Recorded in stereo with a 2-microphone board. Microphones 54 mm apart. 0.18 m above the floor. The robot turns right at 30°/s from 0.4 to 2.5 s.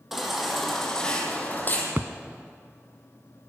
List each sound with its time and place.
0.1 s a baby crying: 5° right, 4.5 m; by 1.9 s 40° left, 4.5 m
2.0 s a thud: 35° right (ahead or behind), 0.6 m